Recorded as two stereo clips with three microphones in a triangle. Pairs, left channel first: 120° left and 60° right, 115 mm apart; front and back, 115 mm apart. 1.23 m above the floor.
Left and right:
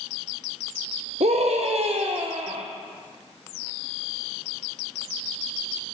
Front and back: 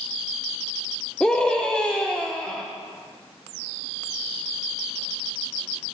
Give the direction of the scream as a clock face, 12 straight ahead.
3 o'clock.